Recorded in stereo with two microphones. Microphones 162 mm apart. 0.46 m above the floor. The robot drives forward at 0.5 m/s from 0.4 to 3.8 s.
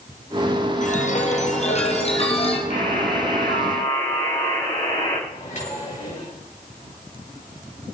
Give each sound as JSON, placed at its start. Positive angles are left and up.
{"t": 0.8, "sound": "a chime", "side_deg": 50, "distance_m": 2.0}
{"t": 2.7, "sound": "a buzzer", "side_deg": 50, "distance_m": 5.0}
{"t": 5.3, "sound": "a microwave", "side_deg": 50, "distance_m": 9.0}